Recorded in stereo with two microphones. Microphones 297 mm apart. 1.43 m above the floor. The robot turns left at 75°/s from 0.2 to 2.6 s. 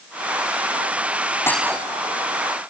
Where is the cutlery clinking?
10° left (ahead or behind); by 1.8 s 20° right (ahead or behind).